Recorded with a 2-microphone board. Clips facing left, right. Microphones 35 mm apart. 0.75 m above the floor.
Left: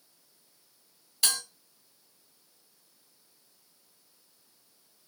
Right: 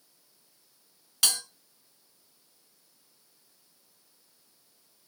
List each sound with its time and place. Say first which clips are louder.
1.2 s a bell: right 2 dB; 65° right (ahead or behind), 2.5 m